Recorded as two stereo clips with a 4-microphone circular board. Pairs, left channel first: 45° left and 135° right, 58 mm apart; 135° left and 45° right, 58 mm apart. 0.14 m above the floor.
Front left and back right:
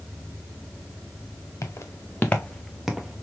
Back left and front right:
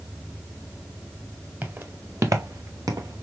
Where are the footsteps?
10° left, 1.1 m; by 3.2 s 65° right, 1.0 m.